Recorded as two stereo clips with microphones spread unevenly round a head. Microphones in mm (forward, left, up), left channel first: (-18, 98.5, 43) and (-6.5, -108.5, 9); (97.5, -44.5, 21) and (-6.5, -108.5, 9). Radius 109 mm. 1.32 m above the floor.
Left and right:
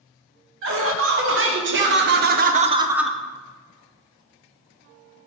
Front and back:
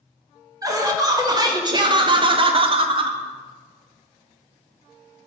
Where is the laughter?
90° right, 2 m; by 3.2 s straight behind, 0.6 m.